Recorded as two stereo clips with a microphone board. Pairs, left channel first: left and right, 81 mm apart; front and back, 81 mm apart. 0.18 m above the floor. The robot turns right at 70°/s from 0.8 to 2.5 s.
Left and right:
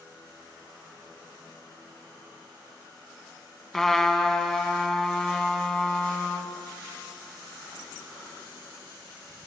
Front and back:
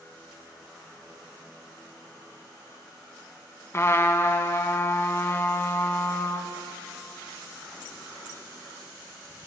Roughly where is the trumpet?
Ahead.